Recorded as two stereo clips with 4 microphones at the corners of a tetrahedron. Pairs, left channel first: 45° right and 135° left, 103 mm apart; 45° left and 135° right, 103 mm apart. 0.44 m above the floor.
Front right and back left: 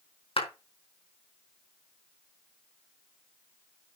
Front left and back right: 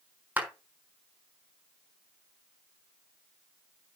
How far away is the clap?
About 4.5 m.